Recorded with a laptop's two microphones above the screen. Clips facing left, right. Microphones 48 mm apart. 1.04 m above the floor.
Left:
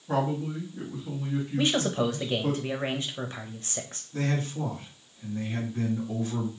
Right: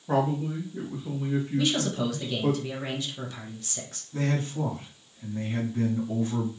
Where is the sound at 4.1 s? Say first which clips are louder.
Right 1 dB; 35° right (ahead or behind), 2.5 m.